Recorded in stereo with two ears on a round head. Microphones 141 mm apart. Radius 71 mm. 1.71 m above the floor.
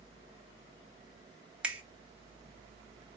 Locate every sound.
1.6 s a finger snap: 5° right (ahead or behind), 0.5 m